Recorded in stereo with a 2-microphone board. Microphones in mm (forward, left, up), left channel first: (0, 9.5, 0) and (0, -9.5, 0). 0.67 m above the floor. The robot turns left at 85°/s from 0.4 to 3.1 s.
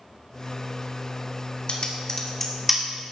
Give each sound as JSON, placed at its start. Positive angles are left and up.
{"t": 1.7, "sound": "typing on a keyboard", "side_deg": 55, "distance_m": 2.0}